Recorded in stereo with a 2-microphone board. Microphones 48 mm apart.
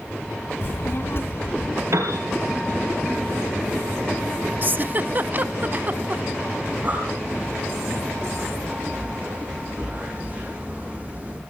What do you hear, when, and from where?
0.6 s a child speaking: 50° left (ahead or behind), 0.7 m
1.9 s a piano: 75° right (ahead or behind), 3.5 m
4.6 s a giggle: 35° right (ahead or behind), 0.6 m
6.7 s breathing: 30° right (ahead or behind), 7 m